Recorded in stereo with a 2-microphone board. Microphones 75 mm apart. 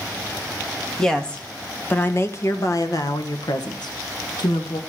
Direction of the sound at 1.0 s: 5° left (ahead or behind).